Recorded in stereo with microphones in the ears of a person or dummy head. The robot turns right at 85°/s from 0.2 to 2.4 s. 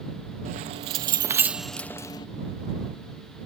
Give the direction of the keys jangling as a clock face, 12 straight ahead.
3 o'clock.